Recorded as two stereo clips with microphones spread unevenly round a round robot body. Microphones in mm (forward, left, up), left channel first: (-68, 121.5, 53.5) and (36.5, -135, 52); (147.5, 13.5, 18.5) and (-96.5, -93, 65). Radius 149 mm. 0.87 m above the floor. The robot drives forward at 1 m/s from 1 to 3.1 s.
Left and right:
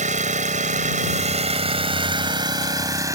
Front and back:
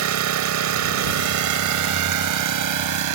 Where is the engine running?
135° right; by 3.1 s 145° right.